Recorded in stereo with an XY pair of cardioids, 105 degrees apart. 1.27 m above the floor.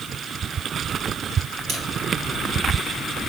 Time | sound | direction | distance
1.7 | a camera shutter | 65° right | 2 m